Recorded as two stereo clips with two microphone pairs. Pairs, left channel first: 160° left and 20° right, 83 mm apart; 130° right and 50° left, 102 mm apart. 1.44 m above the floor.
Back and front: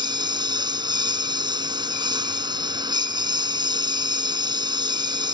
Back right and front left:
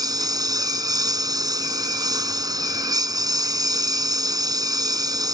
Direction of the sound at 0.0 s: Straight ahead.